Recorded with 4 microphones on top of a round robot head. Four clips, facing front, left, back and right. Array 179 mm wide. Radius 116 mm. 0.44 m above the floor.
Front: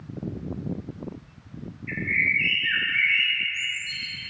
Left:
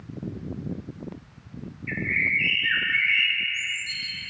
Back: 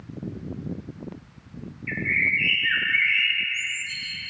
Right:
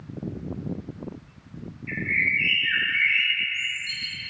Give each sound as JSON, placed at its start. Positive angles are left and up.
{"t": 1.9, "sound": "a bird", "azimuth_deg": 140, "distance_m": 1.7}